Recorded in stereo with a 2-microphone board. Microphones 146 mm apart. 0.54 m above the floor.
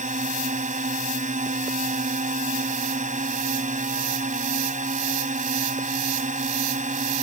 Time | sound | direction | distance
0.0 | a drone | 60° right (ahead or behind) | ?